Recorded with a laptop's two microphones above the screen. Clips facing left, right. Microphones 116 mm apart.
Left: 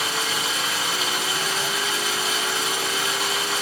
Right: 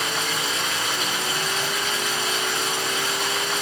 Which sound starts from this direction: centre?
Running water, at 0.0 s.